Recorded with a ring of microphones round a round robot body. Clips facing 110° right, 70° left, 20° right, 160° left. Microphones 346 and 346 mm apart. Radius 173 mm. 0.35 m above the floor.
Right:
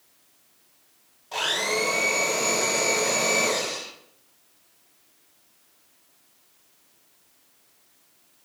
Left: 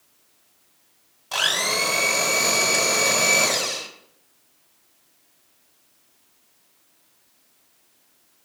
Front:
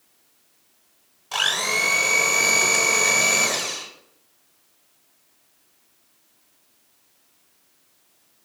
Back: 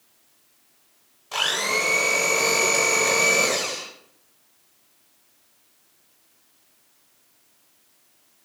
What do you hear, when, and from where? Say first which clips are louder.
1.3 s a blender: right 2 dB, back 2 dB; 40° left, 1.5 m